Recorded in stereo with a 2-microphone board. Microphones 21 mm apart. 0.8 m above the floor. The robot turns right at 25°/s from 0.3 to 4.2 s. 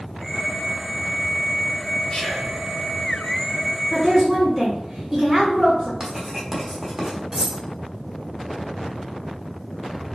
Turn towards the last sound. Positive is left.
turn(degrees=-30)  # may be behind; listen again after turning